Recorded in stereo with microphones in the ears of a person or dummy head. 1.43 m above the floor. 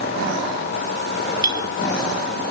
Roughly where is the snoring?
No snoring in this recording.